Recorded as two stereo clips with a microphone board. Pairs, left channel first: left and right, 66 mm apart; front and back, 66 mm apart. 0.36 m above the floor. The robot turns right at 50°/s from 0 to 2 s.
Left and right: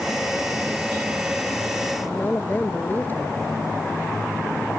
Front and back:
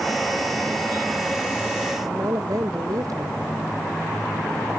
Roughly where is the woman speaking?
Behind left.